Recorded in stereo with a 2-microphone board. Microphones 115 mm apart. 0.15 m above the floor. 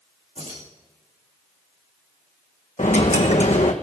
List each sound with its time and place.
0.4 s keys jangling: 65° right (ahead or behind), 7.5 m
2.8 s a dropped coin: 85° left, 1.5 m